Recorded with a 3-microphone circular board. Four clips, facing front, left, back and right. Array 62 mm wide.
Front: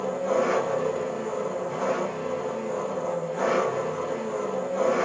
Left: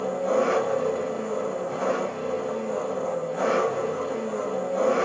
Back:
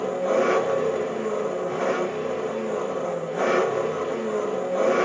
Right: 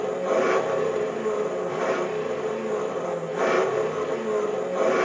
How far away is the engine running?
About 1.0 m.